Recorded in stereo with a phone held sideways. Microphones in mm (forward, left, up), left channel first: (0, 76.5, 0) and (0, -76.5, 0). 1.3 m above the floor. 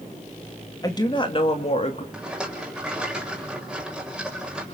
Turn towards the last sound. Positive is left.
turn(degrees=-5)  # may be behind; listen again after turning